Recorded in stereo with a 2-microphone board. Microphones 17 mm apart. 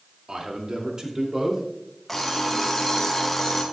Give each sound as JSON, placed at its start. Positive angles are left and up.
{"t": 0.3, "sound": "a man speaking", "side_deg": -55, "distance_m": 2.5}
{"t": 2.1, "sound": "an alarm clock", "side_deg": 10, "distance_m": 2.0}